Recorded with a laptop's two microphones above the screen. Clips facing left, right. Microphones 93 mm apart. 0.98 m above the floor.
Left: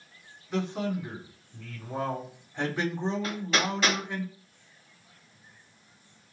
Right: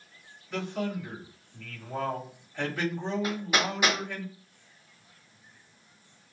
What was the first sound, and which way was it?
A man speaking, 20° left (ahead or behind).